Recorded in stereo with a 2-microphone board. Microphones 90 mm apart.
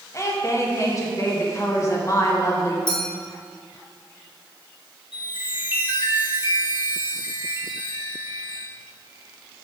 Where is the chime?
70° left (ahead or behind), 1.5 m.